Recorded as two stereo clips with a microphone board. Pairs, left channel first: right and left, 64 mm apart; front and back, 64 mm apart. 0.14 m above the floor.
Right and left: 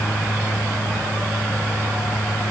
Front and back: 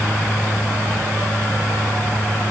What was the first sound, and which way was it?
Only background noise.